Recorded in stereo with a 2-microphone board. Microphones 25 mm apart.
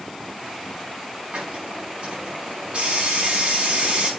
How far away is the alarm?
I don't hear an alarm.